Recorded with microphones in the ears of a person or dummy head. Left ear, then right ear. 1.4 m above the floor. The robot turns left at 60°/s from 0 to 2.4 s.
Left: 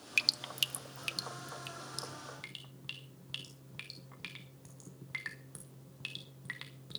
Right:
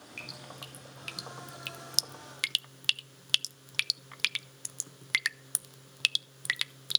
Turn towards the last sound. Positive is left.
turn(degrees=-65)  # may be behind; listen again after turning